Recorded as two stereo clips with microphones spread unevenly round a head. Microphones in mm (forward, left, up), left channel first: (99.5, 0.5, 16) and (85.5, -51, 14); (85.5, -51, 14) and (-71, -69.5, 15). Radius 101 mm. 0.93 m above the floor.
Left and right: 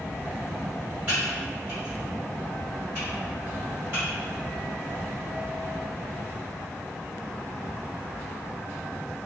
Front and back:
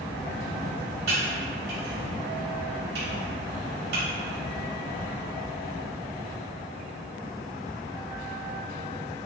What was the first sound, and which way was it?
Typing on a keyboard, straight behind.